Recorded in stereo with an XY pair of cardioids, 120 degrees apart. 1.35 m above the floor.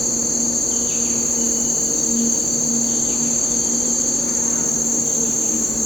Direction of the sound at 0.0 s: 5° left.